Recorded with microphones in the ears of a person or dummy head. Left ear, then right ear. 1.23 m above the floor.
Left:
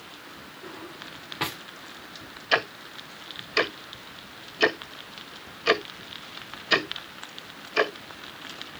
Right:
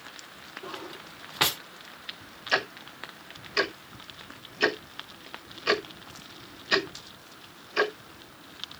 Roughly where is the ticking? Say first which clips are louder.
Left 3 dB; centre.